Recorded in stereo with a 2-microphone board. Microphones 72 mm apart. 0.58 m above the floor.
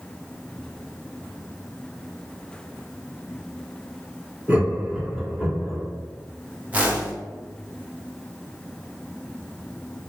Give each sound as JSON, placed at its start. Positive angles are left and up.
{"t": 4.5, "sound": "laughter", "side_deg": -20, "distance_m": 1.5}
{"t": 6.7, "sound": "a whoosh", "side_deg": -20, "distance_m": 1.0}